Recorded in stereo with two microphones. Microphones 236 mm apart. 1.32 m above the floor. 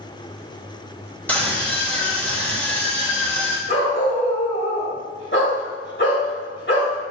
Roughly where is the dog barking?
Left.